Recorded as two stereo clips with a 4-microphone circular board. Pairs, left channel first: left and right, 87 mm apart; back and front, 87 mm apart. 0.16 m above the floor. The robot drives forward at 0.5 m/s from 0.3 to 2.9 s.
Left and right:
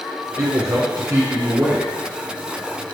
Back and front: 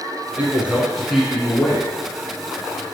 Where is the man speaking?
60° right, 1.4 m; by 1.9 s 110° right, 1.3 m.